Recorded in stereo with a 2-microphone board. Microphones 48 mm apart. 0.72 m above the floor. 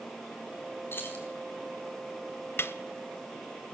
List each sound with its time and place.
0.9 s keys jangling: 45° left (ahead or behind), 4 m
2.6 s a snare drum: 50° left (ahead or behind), 1.0 m